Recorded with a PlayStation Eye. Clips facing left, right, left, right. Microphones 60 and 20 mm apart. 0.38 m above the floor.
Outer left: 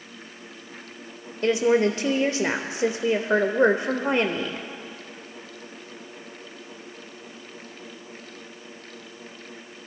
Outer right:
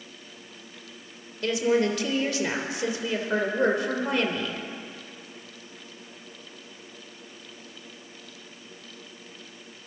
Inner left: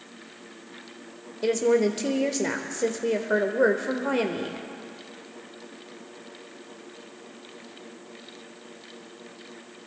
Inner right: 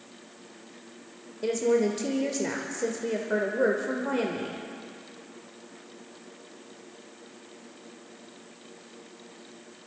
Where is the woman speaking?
25° left (ahead or behind), 0.9 m.